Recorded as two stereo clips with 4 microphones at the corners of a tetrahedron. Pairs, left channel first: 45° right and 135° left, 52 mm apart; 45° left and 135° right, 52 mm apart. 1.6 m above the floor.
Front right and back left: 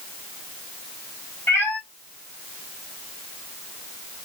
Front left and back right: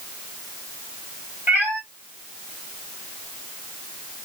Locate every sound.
1.5 s a cat meowing: 75° right, 2 m